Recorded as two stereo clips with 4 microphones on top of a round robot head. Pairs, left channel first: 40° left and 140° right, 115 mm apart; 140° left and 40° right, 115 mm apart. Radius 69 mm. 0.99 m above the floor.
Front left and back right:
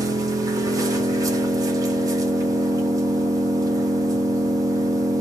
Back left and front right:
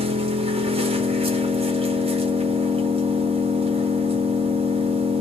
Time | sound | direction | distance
0.0 | an engine running | 75° right | 1.3 m